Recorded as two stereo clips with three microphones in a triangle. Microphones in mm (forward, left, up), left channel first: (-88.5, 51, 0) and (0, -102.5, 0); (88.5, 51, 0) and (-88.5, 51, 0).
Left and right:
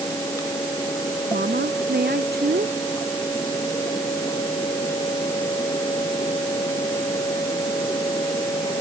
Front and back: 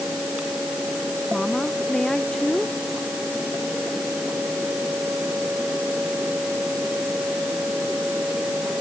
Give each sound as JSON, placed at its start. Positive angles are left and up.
{"t": 1.3, "sound": "a woman speaking", "azimuth_deg": -85}